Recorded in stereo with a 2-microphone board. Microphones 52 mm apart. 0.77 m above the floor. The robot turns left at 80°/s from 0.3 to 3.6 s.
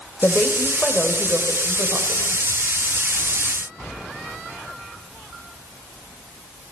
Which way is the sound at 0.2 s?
40° left.